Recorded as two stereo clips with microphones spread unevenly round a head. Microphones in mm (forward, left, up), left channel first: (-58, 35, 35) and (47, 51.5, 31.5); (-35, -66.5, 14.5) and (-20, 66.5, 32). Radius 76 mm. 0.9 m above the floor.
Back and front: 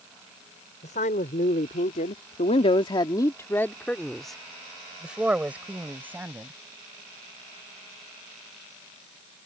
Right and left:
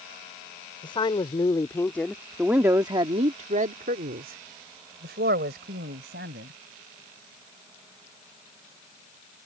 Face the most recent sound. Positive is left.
turn(degrees=80)